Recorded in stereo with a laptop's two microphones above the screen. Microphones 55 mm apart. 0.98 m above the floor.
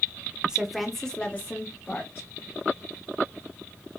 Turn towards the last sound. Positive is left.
turn(degrees=45)  # may be behind; listen again after turning